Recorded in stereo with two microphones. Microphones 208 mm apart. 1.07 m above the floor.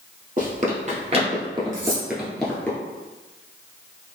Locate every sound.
0.4 s running footsteps: 45° right (ahead or behind), 1.4 m; by 2.7 s 10° left (ahead or behind), 1.0 m
1.7 s cutlery clinking: 65° right (ahead or behind), 0.8 m